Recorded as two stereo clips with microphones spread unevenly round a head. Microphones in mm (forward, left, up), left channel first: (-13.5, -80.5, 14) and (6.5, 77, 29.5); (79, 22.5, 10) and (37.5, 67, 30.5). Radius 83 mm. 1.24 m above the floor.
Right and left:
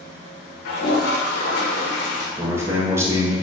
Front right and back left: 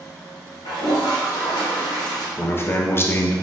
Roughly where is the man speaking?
Ahead.